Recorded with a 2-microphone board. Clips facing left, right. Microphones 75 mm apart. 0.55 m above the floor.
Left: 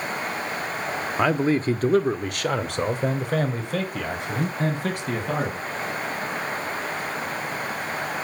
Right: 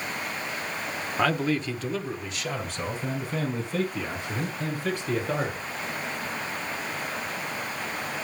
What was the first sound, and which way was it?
A man speaking, 15° left (ahead or behind).